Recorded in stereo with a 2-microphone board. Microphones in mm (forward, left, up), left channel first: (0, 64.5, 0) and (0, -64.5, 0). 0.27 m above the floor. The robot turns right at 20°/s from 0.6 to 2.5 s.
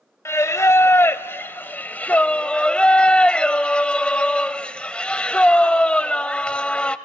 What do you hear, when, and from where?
0.2 s singing: 20° left (ahead or behind), 0.5 m; by 7.0 s 10° left (ahead or behind), 0.5 m